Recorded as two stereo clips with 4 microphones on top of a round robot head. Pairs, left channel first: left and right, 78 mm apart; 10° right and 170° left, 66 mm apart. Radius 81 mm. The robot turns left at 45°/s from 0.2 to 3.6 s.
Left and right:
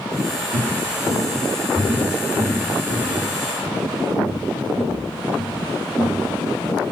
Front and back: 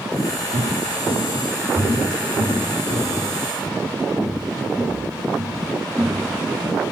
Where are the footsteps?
150° right, 3.5 m; by 6.3 s 130° left, 1.7 m.